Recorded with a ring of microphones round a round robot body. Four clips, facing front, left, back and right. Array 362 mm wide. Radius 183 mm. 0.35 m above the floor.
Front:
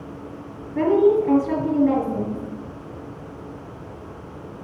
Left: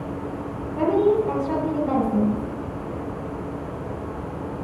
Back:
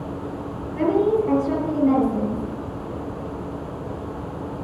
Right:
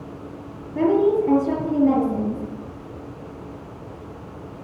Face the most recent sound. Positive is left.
turn(degrees=-75)